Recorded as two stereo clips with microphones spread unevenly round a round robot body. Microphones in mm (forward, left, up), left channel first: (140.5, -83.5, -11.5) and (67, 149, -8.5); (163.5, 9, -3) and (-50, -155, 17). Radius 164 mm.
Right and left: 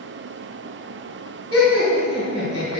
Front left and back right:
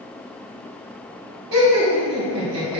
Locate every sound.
1.5 s laughter: 170° right, 2.5 m